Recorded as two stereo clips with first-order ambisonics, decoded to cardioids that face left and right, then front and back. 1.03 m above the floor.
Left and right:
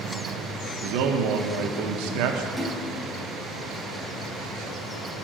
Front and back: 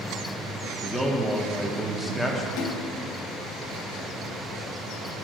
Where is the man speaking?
90° right, 0.8 m.